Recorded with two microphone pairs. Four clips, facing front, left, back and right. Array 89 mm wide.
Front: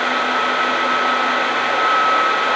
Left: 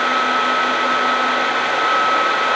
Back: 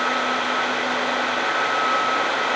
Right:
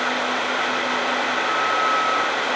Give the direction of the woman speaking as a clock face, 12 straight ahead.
I don't hear a woman speaking.